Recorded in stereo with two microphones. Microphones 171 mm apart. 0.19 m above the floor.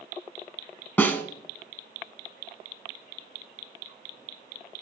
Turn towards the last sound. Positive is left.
turn(degrees=10)  # may be behind; listen again after turning